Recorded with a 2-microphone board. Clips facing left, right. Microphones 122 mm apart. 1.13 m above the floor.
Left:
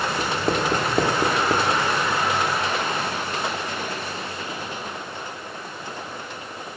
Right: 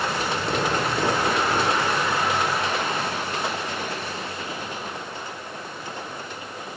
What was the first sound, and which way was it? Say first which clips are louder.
Writing: left 2 dB; 45° left (ahead or behind).